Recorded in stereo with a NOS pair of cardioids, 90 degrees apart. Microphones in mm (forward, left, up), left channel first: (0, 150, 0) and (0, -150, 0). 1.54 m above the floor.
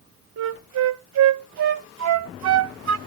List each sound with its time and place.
0.4 s a flute: 55° right, 0.8 m